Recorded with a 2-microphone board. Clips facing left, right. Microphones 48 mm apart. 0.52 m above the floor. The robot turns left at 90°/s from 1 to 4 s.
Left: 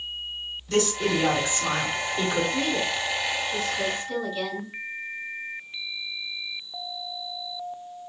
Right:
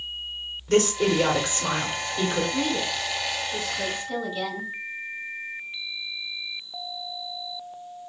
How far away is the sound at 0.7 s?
About 2 m.